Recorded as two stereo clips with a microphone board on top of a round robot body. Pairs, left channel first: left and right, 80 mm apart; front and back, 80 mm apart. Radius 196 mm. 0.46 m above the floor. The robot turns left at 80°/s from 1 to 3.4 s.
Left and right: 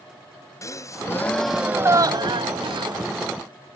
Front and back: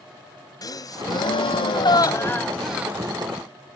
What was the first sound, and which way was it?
A gasp, 40° left.